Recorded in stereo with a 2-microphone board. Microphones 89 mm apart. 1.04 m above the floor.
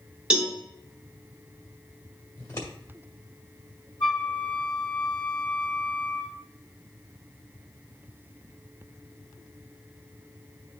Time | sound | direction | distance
0.3 | a cowbell | 10° right (ahead or behind) | 1.6 m
2.4 | scissors | 40° left (ahead or behind) | 1.8 m
4.0 | a flute | 65° left (ahead or behind) | 1.9 m